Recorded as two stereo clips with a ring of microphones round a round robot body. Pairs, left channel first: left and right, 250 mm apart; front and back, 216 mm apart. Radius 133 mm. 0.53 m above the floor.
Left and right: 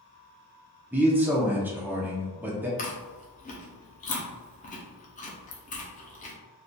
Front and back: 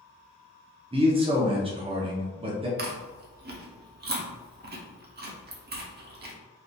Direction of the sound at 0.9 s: 165° right.